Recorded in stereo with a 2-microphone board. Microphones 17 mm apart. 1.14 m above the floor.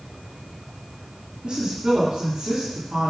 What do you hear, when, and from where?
1.4 s a woman speaking: 80° right, 3 m